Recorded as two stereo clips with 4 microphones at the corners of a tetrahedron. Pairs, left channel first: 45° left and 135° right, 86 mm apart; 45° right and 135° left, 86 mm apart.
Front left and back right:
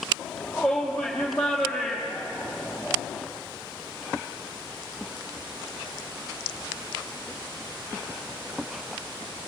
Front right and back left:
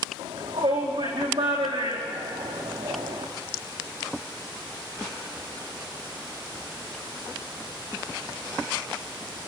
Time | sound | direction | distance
0.2 | a shout | 130° left | 5.5 m